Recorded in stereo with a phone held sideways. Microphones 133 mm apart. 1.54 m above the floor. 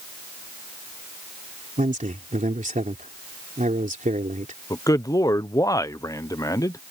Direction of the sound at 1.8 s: 80° right.